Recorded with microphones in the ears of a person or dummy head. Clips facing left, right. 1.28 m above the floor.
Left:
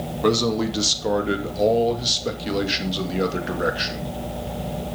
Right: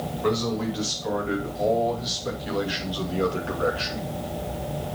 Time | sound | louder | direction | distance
0.2 | a man speaking | left 5 dB | 75° left (ahead or behind) | 2.5 m